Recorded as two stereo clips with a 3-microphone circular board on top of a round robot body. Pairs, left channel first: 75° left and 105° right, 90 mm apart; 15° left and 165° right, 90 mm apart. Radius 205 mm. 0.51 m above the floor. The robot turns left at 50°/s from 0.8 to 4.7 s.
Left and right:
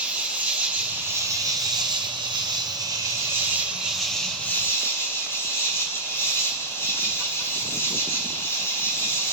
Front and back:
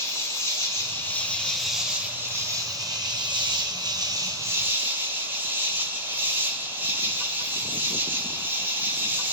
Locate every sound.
0.0 s an insect: 35° right, 1.4 m; by 9.3 s 130° left, 1.4 m